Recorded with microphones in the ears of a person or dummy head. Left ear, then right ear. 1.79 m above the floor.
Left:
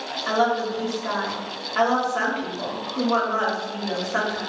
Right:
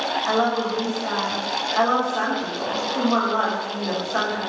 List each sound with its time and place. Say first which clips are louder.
0.3 s a woman speaking: left 2 dB; 15° left (ahead or behind), 1.5 m